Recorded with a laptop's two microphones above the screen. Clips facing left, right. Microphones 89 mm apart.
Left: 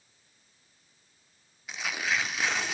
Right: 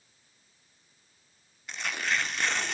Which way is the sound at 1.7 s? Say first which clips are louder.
Even; 5° left (ahead or behind).